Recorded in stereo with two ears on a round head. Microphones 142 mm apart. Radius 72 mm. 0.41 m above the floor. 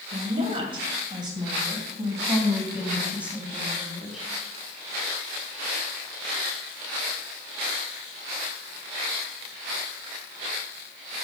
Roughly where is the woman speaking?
Right.